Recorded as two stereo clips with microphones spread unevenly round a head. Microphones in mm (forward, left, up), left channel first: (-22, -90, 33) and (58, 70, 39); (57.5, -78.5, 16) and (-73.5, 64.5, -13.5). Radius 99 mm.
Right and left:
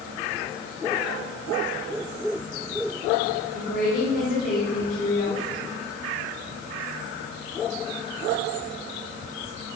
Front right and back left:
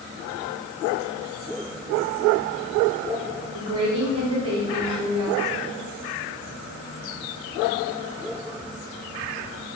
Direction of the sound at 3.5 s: 165° right.